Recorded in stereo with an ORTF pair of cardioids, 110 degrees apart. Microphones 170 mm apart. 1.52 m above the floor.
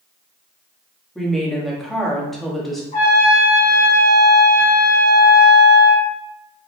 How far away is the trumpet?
About 1.5 m.